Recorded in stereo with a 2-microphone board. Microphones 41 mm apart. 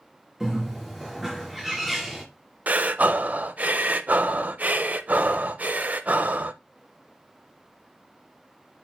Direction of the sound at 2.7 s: 40° right (ahead or behind).